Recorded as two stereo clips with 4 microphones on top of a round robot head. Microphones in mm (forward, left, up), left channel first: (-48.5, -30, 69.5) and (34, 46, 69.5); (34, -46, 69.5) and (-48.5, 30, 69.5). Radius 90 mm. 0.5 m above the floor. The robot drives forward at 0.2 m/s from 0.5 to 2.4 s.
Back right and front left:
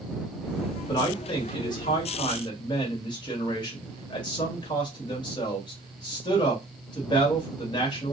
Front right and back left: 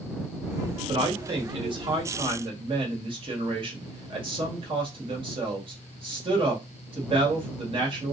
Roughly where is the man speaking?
Behind.